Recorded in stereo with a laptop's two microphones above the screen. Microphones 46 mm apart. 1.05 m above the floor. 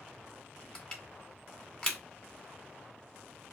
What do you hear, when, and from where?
0.8 s crushing: 20° left (ahead or behind), 1.4 m